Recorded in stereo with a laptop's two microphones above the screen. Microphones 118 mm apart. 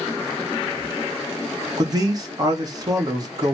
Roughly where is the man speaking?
Right.